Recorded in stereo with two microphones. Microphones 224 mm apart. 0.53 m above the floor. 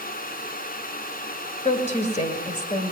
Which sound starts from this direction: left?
A woman speaking, at 1.6 s.